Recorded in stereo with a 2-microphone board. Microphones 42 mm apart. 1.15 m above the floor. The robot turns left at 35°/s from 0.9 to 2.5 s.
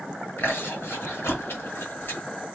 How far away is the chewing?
About 1.6 m.